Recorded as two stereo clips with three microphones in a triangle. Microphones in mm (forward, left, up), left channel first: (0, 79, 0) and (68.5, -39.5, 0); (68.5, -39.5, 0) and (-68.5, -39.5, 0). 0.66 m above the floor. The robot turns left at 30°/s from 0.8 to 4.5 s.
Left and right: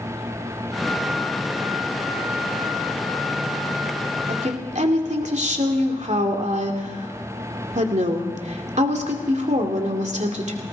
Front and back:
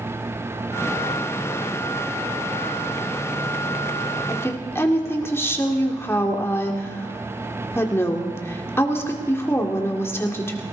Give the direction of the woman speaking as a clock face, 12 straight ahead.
2 o'clock.